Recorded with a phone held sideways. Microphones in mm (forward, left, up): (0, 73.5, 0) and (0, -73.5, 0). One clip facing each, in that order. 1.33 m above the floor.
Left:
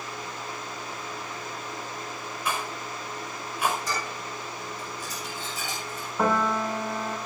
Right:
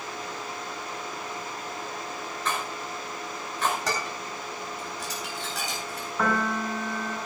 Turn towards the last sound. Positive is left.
turn(degrees=25)  # may be behind; listen again after turning